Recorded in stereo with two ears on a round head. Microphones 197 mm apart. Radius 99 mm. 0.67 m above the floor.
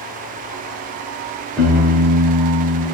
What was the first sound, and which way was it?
A piano, 5° left (ahead or behind).